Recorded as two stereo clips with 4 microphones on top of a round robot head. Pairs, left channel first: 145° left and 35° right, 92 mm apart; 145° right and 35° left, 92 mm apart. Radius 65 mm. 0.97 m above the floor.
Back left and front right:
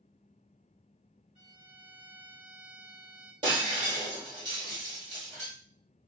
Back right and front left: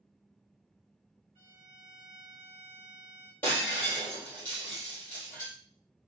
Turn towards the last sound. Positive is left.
turn(degrees=-75)